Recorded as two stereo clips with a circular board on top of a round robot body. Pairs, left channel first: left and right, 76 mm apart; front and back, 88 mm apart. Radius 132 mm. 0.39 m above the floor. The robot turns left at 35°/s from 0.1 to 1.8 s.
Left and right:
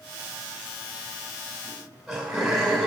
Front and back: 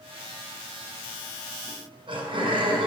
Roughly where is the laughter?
Behind.